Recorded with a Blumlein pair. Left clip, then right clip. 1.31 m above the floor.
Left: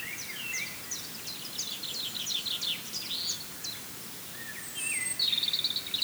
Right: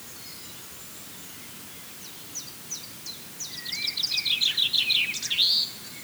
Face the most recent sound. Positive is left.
No sound to turn to.